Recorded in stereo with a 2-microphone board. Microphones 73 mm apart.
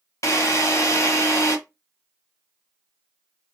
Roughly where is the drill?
Left.